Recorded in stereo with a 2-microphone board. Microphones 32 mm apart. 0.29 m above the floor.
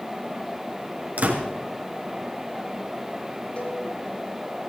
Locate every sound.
1.2 s a door slam: 50° right (ahead or behind), 3.5 m
3.6 s a cowbell: 45° left (ahead or behind), 4 m